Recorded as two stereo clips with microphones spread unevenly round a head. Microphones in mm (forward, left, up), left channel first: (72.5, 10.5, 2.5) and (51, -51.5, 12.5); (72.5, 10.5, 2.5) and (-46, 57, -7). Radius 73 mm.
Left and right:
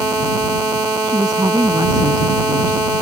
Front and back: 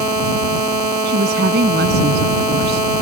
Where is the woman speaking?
175° right; by 2.9 s straight behind.